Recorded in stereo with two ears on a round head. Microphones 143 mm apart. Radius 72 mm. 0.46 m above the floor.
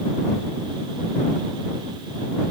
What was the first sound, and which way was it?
Only background noise.